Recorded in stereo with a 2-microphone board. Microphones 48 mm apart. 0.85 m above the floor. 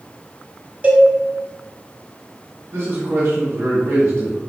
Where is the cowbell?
30° right (ahead or behind), 0.9 m.